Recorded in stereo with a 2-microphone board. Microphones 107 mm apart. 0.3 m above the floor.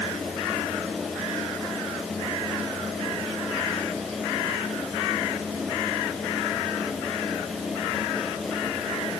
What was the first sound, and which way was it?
Only background noise.